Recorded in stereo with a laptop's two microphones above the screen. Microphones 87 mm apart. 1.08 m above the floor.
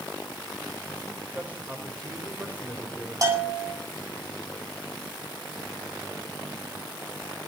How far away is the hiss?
I don't hear a hiss.